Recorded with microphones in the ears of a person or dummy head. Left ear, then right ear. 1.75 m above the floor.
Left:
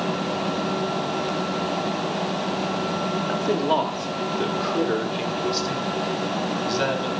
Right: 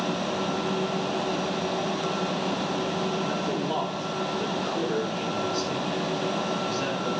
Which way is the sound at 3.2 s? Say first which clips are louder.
Left 5 dB; 55° left (ahead or behind).